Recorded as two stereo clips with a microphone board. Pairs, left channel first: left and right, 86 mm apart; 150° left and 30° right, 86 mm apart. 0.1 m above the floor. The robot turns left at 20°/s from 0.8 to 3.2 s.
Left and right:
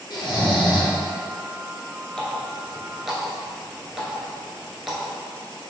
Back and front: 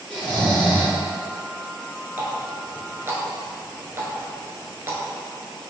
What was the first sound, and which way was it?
Snoring, 70° left.